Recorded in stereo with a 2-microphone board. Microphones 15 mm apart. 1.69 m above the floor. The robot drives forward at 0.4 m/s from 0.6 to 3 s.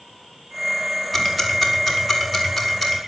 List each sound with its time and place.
1.1 s ticking: 5° right (ahead or behind), 4.5 m